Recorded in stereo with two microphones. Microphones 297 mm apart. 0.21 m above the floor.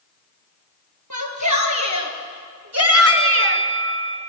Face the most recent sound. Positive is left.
turn(degrees=20)  # may be behind; listen again after turning